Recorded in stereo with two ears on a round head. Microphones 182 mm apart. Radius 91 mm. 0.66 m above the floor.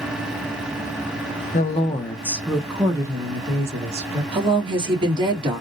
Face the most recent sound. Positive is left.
turn(degrees=-25)  # may be behind; listen again after turning